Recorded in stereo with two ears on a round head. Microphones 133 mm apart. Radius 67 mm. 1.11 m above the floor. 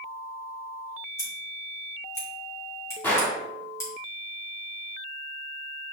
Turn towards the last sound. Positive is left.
turn(degrees=15)  # may be behind; listen again after turning